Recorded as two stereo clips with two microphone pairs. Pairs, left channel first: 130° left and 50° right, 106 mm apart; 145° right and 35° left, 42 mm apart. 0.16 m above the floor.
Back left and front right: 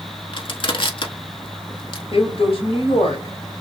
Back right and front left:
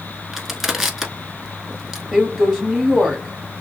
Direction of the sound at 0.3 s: 120° left.